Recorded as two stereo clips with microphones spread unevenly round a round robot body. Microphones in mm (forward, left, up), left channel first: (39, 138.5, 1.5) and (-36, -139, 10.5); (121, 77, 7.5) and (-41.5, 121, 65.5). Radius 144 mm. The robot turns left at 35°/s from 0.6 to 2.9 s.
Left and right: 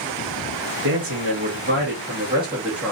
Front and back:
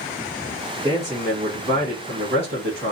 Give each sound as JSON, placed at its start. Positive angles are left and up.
{"t": 0.8, "sound": "a man speaking", "azimuth_deg": -120, "distance_m": 1.3}